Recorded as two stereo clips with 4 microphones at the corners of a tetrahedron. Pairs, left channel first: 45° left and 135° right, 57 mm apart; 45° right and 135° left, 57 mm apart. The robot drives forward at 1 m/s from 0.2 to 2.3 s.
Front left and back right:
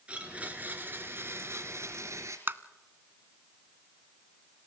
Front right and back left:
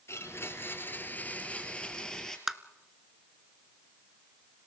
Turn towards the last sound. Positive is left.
turn(degrees=-145)